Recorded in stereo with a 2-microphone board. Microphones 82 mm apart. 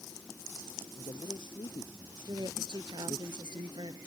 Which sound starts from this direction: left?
A man speaking, at 0.9 s.